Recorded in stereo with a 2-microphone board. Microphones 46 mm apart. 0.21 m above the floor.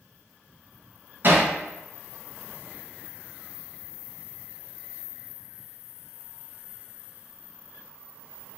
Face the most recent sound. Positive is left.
turn(degrees=-45)  # may be behind; listen again after turning